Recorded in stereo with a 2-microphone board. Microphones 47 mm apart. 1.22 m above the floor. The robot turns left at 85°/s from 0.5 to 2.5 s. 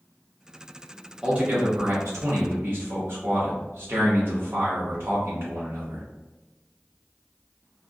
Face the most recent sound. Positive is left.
turn(degrees=-120)